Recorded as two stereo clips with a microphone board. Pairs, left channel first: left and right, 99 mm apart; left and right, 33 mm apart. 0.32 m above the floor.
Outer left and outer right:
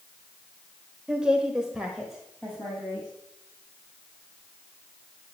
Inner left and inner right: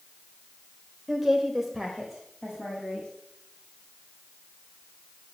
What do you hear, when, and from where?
1.1 s a woman speaking: 10° right (ahead or behind), 1.2 m; by 3.1 s centre (ahead or behind), 2.5 m